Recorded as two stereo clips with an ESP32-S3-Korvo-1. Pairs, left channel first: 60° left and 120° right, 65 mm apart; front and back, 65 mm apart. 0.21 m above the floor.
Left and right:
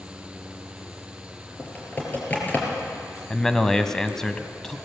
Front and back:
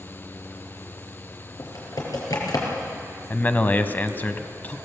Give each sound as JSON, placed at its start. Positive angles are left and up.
{"t": 1.6, "sound": "typing on a keyboard", "azimuth_deg": -5, "distance_m": 4.5}
{"t": 3.3, "sound": "a man speaking", "azimuth_deg": -15, "distance_m": 1.1}